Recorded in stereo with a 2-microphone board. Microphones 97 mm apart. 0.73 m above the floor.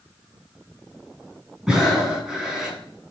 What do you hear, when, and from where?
1.7 s breathing: centre (ahead or behind), 6 m